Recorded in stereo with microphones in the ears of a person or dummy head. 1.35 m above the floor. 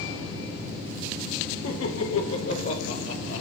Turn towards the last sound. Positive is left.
turn(degrees=80)